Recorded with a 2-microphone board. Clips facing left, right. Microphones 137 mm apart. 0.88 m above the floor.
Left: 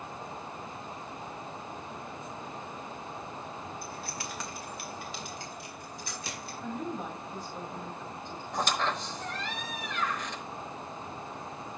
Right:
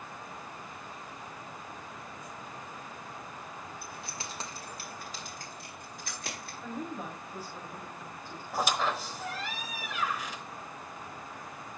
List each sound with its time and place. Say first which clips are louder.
3.8 s keys jangling: left 3 dB; 10° right (ahead or behind), 1.5 m; by 6.5 s 55° right (ahead or behind), 5 m
6.6 s a woman speaking: left 2 dB; 5° right (ahead or behind), 5.5 m
8.5 s a squeak: right 1 dB; 5° right (ahead or behind), 0.9 m